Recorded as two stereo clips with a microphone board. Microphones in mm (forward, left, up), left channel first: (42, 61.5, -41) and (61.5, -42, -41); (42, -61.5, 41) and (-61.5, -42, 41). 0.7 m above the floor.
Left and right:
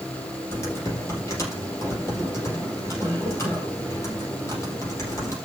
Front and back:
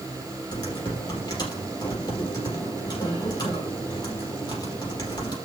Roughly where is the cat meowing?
No cat meowing in this recording.